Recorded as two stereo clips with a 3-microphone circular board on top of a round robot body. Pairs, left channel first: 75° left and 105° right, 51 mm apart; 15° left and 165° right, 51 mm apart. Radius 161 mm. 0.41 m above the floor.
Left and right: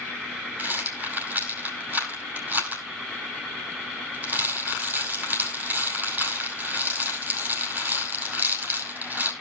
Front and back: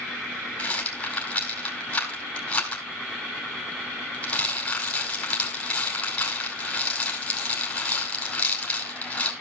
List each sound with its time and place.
0.6 s a rattle: 50° right, 5.5 m